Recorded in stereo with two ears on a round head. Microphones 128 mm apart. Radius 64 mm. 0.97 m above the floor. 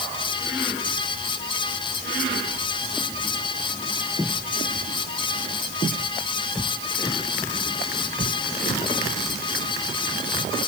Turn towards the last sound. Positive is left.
No sound to turn to.